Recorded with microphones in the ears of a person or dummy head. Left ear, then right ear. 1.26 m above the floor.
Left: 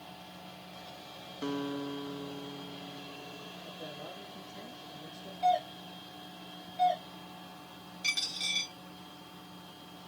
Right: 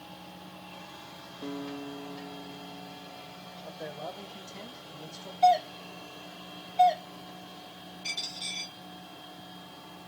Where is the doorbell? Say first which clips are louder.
Right 6 dB; 35° right (ahead or behind), 1.8 m.